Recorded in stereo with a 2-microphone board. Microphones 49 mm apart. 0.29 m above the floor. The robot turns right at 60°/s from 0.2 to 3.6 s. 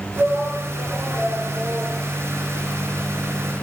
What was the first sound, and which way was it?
A shout, 90° right.